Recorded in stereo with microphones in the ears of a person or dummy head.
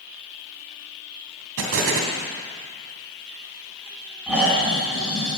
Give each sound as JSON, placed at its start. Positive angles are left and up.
{"t": 1.6, "sound": "an explosion", "side_deg": -75, "distance_m": 3.0}
{"t": 4.3, "sound": "snoring", "side_deg": 0, "distance_m": 7.0}